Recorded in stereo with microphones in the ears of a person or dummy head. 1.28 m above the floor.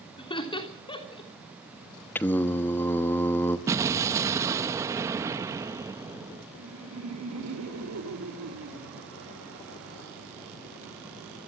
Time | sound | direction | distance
0.2 | laughter | 25° left (ahead or behind) | 3 m
2.1 | singing | 10° left (ahead or behind) | 1.0 m
3.7 | an explosion | 20° right (ahead or behind) | 0.9 m
6.5 | laughter | 85° right | 3 m